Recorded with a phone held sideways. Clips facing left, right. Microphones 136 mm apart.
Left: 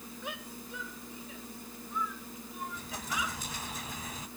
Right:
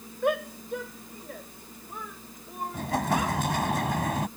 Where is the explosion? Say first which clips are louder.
Right 14 dB; 70° right (ahead or behind).